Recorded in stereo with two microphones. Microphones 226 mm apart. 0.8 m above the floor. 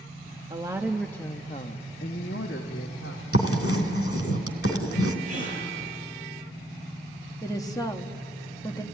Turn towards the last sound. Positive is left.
turn(degrees=15)  # may be behind; listen again after turning